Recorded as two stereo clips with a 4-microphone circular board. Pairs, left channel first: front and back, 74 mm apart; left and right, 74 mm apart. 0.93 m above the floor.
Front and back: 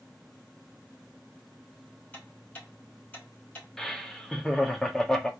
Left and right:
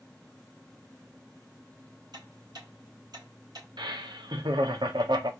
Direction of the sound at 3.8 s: 85° right.